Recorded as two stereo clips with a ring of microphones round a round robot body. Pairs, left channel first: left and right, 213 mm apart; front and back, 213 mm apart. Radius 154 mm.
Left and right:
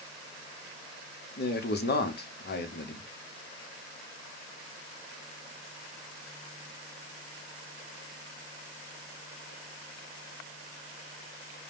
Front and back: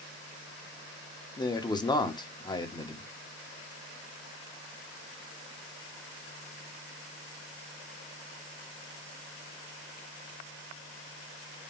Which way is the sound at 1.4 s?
65° left.